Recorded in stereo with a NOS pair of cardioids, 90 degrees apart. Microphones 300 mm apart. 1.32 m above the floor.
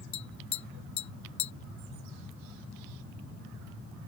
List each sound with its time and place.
0.1 s tapping: 70° left